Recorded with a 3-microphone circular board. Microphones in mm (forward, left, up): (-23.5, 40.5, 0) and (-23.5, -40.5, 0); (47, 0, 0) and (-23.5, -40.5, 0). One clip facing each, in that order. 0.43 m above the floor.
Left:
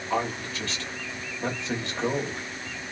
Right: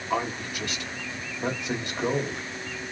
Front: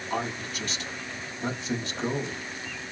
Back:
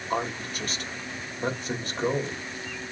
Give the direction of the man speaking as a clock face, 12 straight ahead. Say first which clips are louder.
Even, back 2 dB; 5 o'clock.